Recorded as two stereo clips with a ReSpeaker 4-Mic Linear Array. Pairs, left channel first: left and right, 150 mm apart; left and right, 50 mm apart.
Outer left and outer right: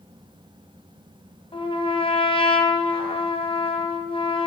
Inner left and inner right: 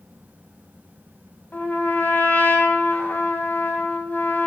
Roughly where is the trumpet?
Left.